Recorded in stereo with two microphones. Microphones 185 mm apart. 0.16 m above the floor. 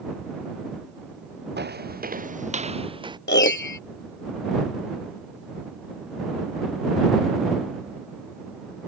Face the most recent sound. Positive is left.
turn(degrees=85)